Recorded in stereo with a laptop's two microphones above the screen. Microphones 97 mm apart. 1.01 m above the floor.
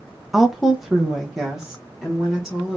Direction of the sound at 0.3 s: 5° right (ahead or behind).